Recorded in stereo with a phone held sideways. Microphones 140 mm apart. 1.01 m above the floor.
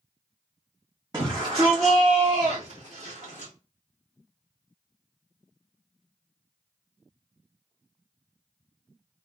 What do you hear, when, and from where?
1.1 s a shout: 30° right (ahead or behind), 0.9 m; by 3.5 s 55° right (ahead or behind), 1.9 m